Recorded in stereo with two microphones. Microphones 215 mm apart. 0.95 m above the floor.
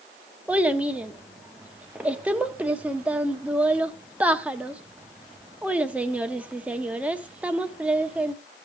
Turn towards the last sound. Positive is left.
turn(degrees=-5)  # may be behind; listen again after turning